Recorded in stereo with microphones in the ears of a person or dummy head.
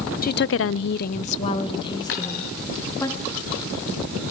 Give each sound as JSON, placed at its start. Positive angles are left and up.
{"t": 0.2, "sound": "a woman speaking", "side_deg": 45, "distance_m": 0.7}
{"t": 2.1, "sound": "a dropped coin", "side_deg": 60, "distance_m": 4.0}